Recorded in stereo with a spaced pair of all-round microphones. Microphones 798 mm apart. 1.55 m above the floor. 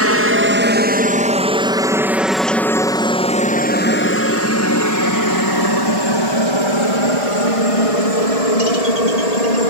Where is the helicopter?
15° right (ahead or behind); by 9.7 s 55° left (ahead or behind).